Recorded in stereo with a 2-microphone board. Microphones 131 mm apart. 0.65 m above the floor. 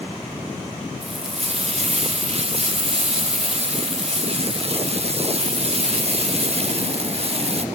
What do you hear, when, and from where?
1.0 s frying: 50° right (ahead or behind), 1.2 m